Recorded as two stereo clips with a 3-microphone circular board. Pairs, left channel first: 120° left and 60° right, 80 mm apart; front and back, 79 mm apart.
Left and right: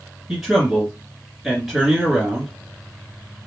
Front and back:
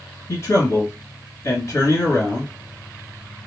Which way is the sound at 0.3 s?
15° left.